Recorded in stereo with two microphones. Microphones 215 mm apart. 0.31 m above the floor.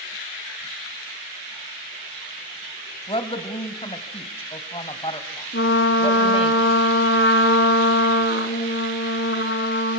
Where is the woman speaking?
25° left (ahead or behind), 1.9 m.